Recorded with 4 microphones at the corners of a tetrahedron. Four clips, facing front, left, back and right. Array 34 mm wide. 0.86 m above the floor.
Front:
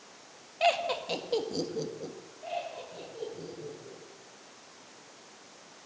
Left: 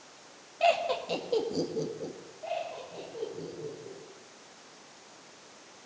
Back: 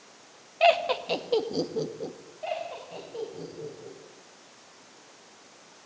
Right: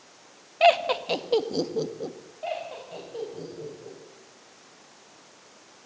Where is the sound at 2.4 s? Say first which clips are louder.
Right 2 dB, back 3 dB; 120° right, 5.5 m.